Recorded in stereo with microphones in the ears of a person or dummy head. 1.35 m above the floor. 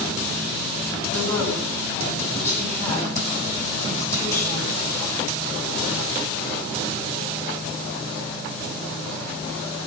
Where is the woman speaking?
10° left (ahead or behind), 8.5 m.